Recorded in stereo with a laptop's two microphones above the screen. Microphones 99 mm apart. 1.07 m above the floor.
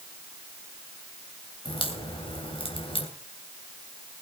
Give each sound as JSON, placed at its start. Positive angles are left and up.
{"t": 1.6, "sound": "a crack", "side_deg": 65, "distance_m": 3.0}